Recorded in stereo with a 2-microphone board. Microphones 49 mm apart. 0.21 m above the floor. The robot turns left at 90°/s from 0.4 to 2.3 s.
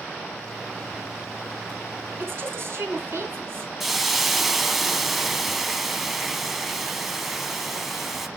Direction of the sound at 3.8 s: 5° right (ahead or behind).